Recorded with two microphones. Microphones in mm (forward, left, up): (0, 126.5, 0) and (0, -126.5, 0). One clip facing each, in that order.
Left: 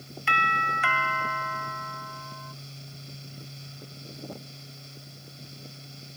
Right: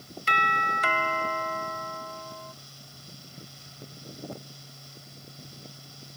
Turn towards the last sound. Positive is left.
turn(degrees=-40)  # may be behind; listen again after turning